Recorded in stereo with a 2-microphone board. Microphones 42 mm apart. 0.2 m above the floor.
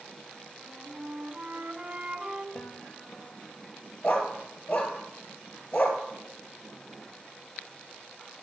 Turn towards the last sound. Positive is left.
turn(degrees=45)  # may be behind; listen again after turning